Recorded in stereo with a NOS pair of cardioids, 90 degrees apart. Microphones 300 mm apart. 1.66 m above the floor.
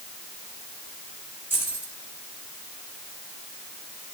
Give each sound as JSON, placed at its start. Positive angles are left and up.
{"t": 1.5, "sound": "keys jangling", "azimuth_deg": -5, "distance_m": 6.5}